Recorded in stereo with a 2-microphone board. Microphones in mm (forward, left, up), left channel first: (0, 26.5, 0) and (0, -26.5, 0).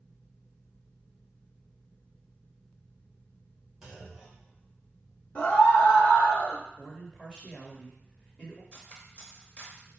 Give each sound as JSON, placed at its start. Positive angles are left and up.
{"t": 3.8, "sound": "a clunk", "side_deg": -5, "distance_m": 1.3}
{"t": 5.3, "sound": "a scream", "side_deg": 30, "distance_m": 1.0}
{"t": 6.8, "sound": "a man speaking", "side_deg": 15, "distance_m": 1.1}
{"t": 8.7, "sound": "cutlery clinking", "side_deg": 30, "distance_m": 0.8}